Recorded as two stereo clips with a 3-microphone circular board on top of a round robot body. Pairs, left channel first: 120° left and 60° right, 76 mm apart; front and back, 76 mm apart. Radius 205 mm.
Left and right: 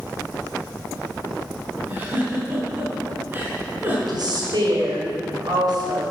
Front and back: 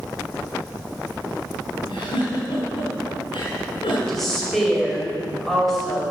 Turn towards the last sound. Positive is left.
turn(degrees=-85)